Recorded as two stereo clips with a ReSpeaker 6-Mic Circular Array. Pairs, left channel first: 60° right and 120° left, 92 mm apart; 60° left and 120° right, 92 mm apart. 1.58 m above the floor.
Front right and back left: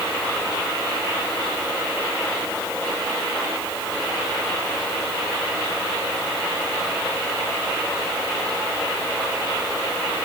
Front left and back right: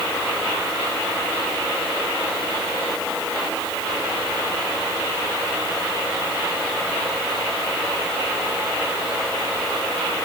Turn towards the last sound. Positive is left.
No sound to turn to.